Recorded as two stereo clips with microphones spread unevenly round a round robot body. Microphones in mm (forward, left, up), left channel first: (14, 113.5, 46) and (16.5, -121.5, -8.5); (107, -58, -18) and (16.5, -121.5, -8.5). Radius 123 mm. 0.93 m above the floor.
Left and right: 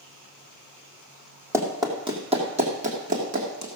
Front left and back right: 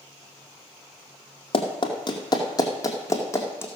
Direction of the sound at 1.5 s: 5° right.